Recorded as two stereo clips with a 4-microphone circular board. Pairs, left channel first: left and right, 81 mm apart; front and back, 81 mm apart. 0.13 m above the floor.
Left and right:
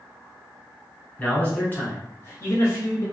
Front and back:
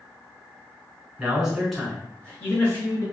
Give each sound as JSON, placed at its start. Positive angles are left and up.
{"t": 1.2, "sound": "a man speaking", "azimuth_deg": 130, "distance_m": 1.1}